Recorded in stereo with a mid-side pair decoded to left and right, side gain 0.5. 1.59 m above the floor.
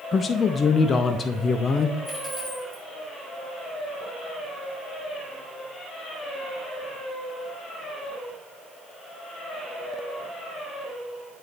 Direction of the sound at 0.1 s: 35° left.